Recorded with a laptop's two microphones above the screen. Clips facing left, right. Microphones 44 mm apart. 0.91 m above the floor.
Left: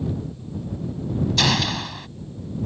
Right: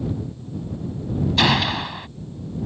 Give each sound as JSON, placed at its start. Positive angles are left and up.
{"t": 1.4, "sound": "a gunshot", "side_deg": -20}